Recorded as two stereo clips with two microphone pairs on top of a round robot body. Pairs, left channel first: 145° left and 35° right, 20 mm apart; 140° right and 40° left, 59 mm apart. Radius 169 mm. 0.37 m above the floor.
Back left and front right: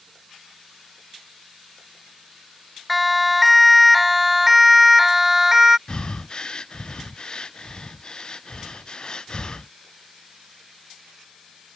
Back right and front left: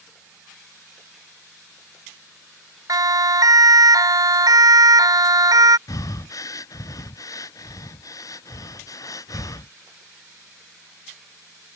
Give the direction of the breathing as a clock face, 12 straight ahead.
6 o'clock.